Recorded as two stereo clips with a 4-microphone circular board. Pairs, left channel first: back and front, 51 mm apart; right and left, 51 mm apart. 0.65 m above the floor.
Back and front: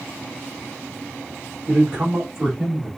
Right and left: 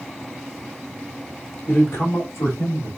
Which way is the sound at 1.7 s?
60° right.